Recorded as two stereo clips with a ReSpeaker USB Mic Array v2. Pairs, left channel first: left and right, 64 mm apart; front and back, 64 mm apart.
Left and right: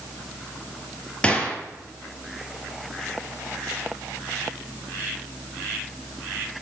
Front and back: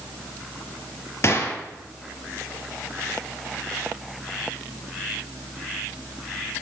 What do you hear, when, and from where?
1.2 s a gunshot: 25° left, 1.5 m